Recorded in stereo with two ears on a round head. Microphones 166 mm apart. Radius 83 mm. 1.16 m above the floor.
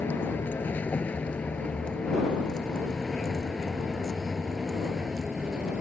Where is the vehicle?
10° left (ahead or behind); by 5.8 s 5° right (ahead or behind).